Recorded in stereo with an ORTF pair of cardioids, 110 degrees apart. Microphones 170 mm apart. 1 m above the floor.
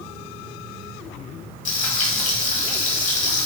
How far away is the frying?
About 1.5 m.